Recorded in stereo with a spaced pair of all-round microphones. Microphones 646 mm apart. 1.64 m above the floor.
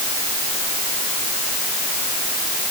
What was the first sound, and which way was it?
Only background noise.